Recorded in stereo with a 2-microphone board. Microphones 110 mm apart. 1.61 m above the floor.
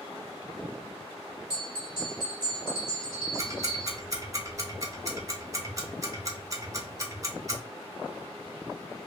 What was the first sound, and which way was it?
A bell, 50° left (ahead or behind).